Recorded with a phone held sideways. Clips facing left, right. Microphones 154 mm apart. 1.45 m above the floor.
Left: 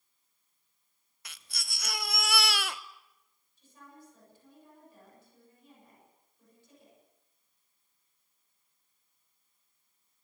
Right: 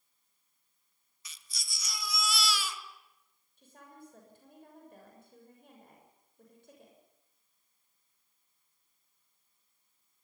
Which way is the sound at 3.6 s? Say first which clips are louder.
Right 1 dB; 60° right (ahead or behind).